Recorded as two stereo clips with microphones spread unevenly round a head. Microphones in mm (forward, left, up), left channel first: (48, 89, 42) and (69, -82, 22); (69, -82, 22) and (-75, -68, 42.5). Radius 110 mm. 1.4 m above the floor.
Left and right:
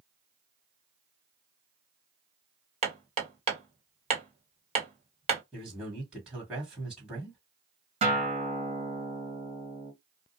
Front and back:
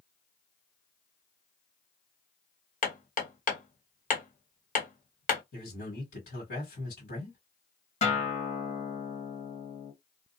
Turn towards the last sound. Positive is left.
turn(degrees=-35)